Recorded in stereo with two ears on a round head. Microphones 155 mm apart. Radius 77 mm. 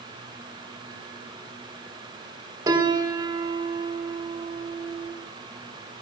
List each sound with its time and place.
2.7 s a piano: 25° right (ahead or behind), 4 m